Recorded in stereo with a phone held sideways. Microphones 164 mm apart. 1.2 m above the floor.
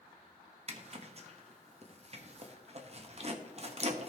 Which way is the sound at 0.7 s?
40° right (ahead or behind).